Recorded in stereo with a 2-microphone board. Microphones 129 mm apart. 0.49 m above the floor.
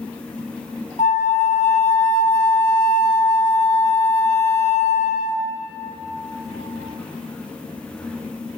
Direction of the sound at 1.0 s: 75° left (ahead or behind).